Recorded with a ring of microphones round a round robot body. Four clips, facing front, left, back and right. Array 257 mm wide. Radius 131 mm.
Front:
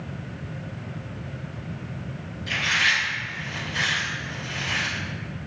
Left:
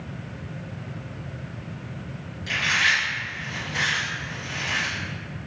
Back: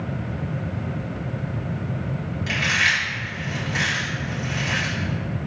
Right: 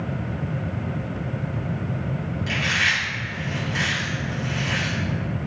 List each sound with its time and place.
2.5 s chewing: 175° right, 1.9 m